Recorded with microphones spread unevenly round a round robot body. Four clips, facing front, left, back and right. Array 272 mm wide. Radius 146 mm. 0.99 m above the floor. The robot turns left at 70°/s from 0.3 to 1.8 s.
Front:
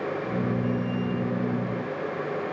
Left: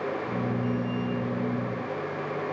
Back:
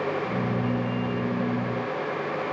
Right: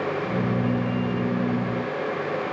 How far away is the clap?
I don't hear a clap.